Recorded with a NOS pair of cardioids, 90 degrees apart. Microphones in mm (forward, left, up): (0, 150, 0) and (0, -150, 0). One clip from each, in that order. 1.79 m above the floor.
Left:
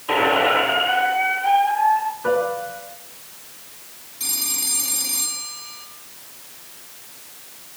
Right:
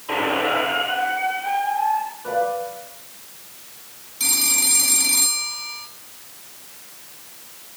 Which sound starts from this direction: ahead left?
A squeak, at 0.1 s.